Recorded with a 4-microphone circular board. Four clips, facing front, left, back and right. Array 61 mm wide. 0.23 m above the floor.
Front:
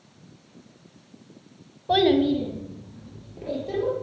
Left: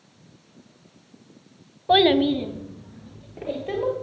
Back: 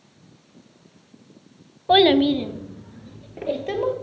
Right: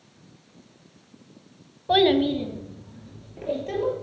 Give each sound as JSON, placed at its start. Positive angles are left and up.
{"t": 1.9, "sound": "a child speaking", "azimuth_deg": 145, "distance_m": 0.7}